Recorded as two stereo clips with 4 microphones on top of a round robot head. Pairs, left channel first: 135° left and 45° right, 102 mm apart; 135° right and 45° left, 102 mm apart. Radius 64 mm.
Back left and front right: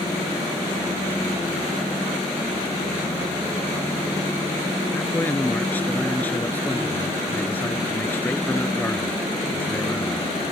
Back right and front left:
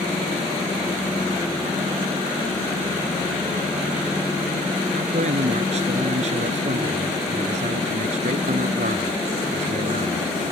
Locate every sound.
4.9 s a man speaking: 60° left